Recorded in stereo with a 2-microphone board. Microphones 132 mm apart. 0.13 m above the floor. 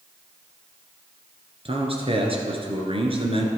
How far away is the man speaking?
About 1.8 m.